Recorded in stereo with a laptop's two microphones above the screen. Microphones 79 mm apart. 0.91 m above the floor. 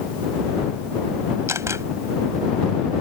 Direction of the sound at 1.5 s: 35° right (ahead or behind).